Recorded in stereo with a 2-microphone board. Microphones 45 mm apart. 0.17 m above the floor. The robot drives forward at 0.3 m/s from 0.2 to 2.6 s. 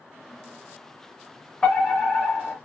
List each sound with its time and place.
1.6 s a fire alarm: 20° left (ahead or behind), 2 m